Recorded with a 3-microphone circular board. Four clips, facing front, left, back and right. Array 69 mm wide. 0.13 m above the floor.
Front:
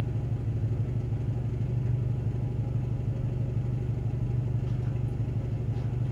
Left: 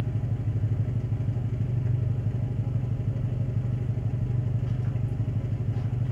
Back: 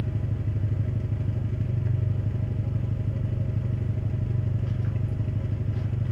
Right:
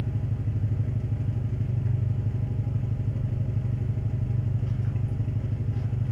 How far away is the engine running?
About 1.2 m.